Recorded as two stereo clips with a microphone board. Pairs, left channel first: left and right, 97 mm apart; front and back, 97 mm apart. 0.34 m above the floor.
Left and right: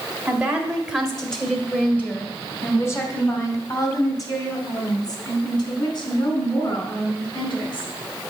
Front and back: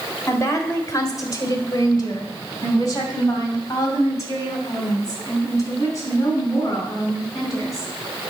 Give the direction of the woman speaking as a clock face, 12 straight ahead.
1 o'clock.